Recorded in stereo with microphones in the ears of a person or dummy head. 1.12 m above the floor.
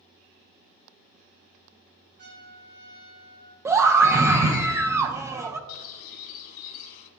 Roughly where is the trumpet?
Right.